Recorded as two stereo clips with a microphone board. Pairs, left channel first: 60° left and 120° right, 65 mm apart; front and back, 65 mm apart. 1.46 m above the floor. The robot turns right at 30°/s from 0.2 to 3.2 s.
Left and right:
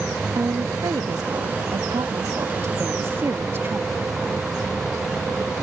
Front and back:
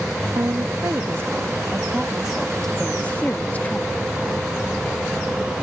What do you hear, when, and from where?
0.3 s a woman speaking: 150° right; by 4.1 s 65° right